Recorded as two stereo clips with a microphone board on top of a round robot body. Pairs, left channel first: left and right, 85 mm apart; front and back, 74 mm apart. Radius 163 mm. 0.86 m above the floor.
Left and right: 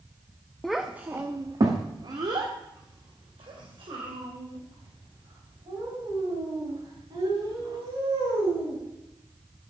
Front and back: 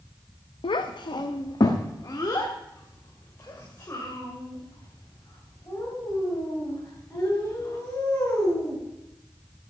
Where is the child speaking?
5° left, 0.6 m; by 8.8 s 65° right, 6 m.